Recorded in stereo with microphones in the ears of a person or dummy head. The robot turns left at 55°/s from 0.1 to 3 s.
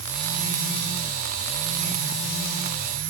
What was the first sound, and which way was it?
Only background noise.